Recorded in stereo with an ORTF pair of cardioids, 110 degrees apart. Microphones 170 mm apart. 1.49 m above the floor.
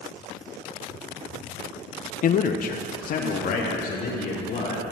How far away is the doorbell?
I don't hear a doorbell.